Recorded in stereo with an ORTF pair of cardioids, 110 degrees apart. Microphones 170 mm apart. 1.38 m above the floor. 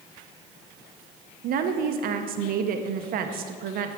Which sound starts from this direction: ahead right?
A woman speaking, at 1.4 s.